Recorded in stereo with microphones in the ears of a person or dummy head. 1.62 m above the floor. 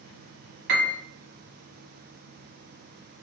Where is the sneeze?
I don't hear a sneeze.